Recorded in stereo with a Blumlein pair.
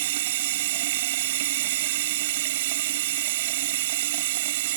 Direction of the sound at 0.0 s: 55° right.